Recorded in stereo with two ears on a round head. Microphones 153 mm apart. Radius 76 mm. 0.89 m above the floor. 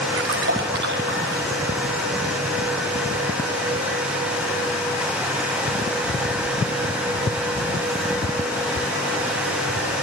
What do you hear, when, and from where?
0.1 s a splash: 75° right (ahead or behind), 5.5 m